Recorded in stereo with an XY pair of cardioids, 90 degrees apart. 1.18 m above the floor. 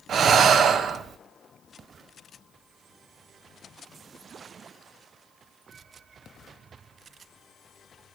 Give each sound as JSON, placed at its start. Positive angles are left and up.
{"t": 0.1, "sound": "breathing", "azimuth_deg": -65, "distance_m": 1.0}